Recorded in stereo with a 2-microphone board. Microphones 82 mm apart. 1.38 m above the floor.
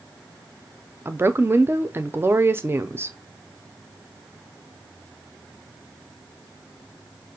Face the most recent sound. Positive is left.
turn(degrees=-30)  # may be behind; listen again after turning